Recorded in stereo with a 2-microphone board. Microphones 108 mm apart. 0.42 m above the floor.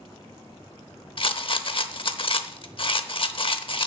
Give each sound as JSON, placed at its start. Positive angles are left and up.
{"t": 1.2, "sound": "a rattle", "side_deg": 55, "distance_m": 0.7}